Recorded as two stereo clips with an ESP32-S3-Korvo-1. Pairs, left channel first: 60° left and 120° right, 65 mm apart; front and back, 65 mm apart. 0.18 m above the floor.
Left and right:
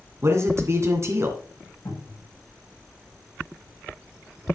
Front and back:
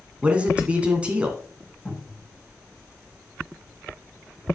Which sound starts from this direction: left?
A cupboard door, at 1.9 s.